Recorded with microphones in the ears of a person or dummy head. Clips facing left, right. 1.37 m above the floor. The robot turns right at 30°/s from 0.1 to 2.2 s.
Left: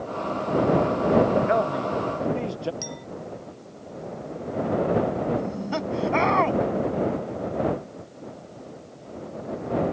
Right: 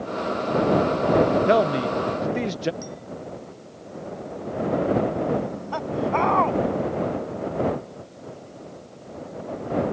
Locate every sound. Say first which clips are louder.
1.5 s a man speaking: right 4 dB; 45° right (ahead or behind); by 2.7 s 25° right (ahead or behind)
2.8 s a clink: even; 70° left (ahead or behind)
5.4 s laughter: left 1 dB; 30° left (ahead or behind)